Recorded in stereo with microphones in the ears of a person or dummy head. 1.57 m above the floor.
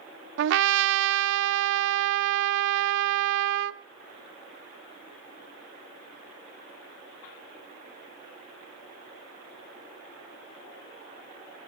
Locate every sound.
0.4 s a trumpet: 75° right (ahead or behind), 0.6 m